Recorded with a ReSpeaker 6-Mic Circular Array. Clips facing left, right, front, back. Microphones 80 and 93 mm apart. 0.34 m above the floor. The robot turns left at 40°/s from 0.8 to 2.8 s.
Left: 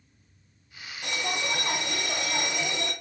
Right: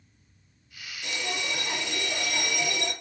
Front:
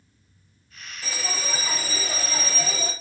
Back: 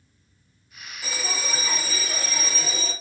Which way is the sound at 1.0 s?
110° left.